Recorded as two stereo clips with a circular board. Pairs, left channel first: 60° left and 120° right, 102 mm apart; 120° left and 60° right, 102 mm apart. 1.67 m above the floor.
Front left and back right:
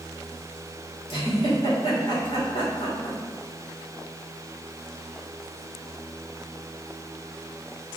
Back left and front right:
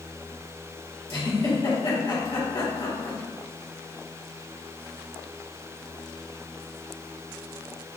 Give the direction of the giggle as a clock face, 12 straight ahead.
9 o'clock.